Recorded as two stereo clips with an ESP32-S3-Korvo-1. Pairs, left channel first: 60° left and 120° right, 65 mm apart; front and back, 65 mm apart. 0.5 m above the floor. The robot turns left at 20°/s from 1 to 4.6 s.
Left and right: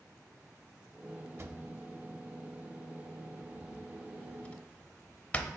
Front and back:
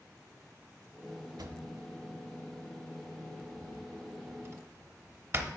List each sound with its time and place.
1.4 s a drawer: 165° right, 0.6 m; by 5.5 s 130° left, 0.6 m